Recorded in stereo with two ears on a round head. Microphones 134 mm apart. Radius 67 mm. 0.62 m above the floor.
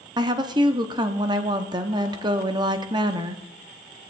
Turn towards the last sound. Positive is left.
turn(degrees=-25)  # may be behind; listen again after turning